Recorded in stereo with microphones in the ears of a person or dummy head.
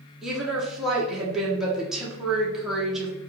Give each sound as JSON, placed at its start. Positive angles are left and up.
{"t": 0.2, "sound": "a woman speaking", "side_deg": 0, "distance_m": 0.7}